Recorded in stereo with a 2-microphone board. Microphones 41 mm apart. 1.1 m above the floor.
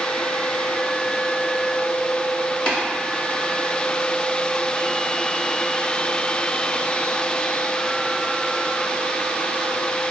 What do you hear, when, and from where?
2.7 s tapping: 25° left (ahead or behind), 1.1 m